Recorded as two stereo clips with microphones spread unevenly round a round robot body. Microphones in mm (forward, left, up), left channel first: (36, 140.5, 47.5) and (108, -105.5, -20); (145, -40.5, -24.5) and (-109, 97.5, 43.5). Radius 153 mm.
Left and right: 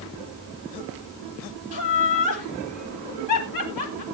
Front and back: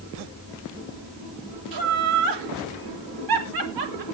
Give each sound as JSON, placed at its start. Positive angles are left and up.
{"t": 1.7, "sound": "laughter", "azimuth_deg": 140, "distance_m": 3.0}